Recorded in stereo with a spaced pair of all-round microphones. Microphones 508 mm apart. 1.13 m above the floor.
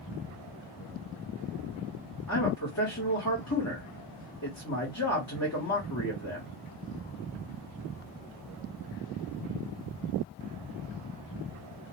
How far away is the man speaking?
About 1.0 m.